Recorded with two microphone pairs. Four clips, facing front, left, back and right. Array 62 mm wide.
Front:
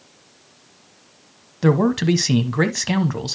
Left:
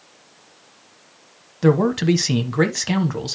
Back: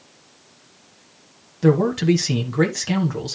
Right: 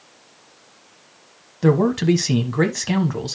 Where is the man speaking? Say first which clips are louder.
Even, even; 5° left, 1.1 m.